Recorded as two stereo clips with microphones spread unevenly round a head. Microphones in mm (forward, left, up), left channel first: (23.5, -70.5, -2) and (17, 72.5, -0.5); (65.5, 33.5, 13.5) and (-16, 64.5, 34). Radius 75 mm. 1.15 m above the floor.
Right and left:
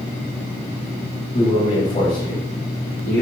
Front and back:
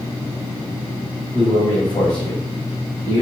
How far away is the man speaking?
About 1.4 m.